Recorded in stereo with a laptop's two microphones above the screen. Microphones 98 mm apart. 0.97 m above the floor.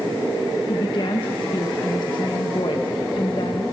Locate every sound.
0.7 s a woman speaking: 50° left (ahead or behind), 1.2 m